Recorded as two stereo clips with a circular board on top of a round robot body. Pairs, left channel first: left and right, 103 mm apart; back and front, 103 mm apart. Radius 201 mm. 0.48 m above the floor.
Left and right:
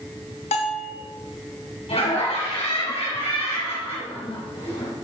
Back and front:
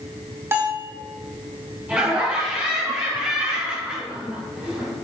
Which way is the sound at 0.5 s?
70° left.